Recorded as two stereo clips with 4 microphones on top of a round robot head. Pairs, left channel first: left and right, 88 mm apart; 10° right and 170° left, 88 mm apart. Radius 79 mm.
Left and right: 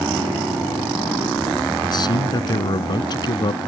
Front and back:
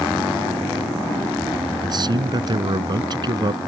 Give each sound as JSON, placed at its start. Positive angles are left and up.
{"t": 1.8, "sound": "a man speaking", "azimuth_deg": 130}